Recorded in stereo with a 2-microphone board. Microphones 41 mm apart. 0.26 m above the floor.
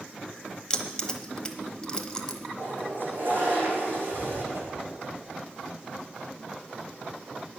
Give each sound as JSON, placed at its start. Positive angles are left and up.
{"t": 0.7, "sound": "keys jangling", "side_deg": 20, "distance_m": 1.1}
{"t": 2.6, "sound": "a toilet flushing", "side_deg": -55, "distance_m": 5.0}
{"t": 4.5, "sound": "a whoosh", "side_deg": -80, "distance_m": 4.0}